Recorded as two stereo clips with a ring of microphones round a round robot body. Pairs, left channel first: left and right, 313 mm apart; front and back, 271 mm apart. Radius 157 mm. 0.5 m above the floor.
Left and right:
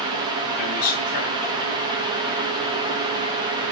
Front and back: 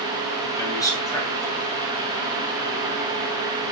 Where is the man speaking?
75° left, 3.5 m.